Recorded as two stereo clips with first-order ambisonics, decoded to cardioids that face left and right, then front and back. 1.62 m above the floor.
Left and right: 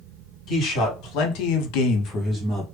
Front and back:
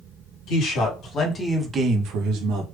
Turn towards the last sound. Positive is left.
turn(degrees=175)